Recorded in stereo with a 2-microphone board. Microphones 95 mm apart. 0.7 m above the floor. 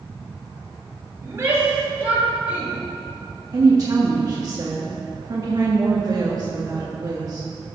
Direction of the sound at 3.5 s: 40° right (ahead or behind).